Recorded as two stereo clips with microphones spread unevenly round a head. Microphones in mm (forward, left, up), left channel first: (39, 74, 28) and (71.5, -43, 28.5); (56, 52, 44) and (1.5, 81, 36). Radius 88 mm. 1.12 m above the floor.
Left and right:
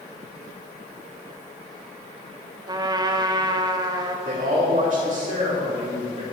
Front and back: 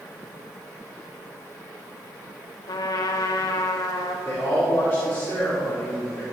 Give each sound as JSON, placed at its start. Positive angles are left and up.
{"t": 2.7, "sound": "a trumpet", "azimuth_deg": -15, "distance_m": 1.1}
{"t": 4.2, "sound": "a man speaking", "azimuth_deg": -95, "distance_m": 4.5}